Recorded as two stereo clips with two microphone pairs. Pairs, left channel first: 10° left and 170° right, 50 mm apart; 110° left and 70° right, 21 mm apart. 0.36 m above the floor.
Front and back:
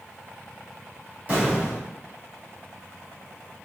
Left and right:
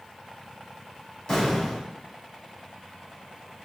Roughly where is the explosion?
Behind left.